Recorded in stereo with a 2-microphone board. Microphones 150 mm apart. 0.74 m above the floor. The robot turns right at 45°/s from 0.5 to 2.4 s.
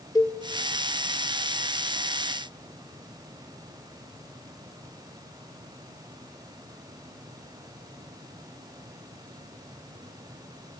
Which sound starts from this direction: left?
A cowbell, at 0.1 s.